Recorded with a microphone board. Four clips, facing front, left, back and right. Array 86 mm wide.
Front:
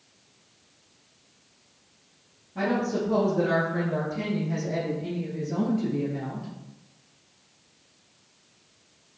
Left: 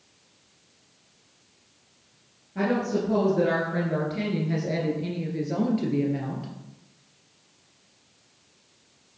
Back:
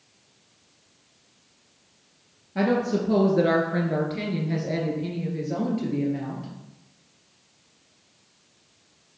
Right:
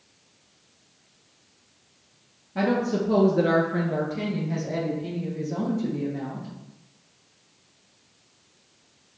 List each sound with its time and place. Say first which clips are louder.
2.5 s a woman speaking: right 1 dB, back 3 dB; 150° right, 2 m; by 6.5 s 100° left, 2.5 m